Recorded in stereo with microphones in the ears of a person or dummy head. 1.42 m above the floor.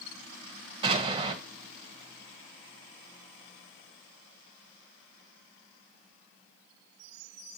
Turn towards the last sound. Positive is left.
turn(degrees=-25)  # may be behind; listen again after turning